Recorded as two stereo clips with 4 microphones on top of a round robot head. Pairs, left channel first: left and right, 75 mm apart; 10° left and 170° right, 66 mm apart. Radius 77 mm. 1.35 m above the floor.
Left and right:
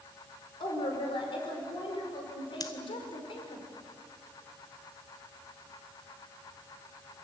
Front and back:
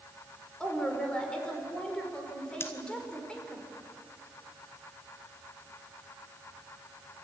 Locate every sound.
0.6 s a woman speaking: 85° left, 5.5 m
2.6 s scissors: 60° left, 1.6 m